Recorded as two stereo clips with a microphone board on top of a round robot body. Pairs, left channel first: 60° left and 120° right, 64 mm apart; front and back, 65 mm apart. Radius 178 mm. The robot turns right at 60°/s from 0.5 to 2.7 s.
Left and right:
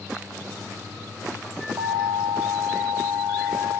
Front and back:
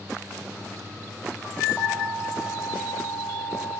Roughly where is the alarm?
Right.